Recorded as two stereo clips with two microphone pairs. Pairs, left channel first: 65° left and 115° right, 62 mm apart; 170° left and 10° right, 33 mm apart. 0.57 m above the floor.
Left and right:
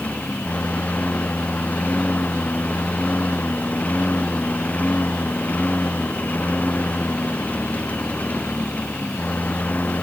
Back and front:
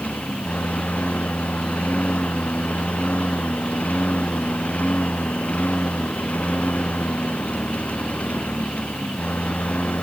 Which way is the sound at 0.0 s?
130° left.